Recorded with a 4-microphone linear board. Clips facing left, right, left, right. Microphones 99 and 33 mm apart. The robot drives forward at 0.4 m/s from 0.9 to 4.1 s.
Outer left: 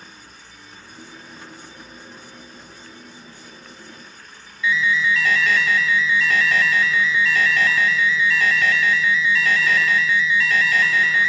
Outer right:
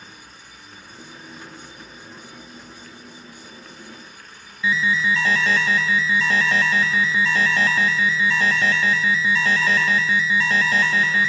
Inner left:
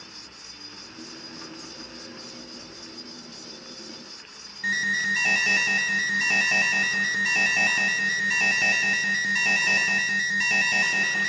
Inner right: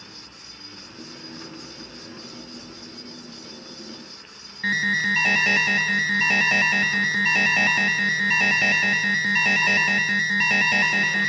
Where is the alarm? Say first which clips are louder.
Outer left 1 dB, inner right 3 dB; 30° right (ahead or behind), 0.8 m.